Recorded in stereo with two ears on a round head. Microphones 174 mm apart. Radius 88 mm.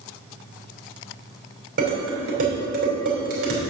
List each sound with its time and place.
1.8 s dishes clattering: 50° right (ahead or behind), 3.5 m